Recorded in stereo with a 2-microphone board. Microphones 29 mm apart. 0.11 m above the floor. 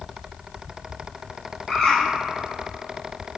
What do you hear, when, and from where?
1.7 s a bird: 25° left (ahead or behind), 1.3 m